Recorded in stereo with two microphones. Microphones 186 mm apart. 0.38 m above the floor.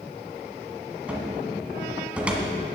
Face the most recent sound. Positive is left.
turn(degrees=-5)  # may be behind; listen again after turning